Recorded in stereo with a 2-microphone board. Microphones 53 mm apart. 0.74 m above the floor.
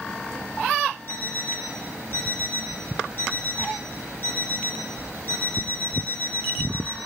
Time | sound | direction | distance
1.1 | an alarm clock | 40° left (ahead or behind) | 3 m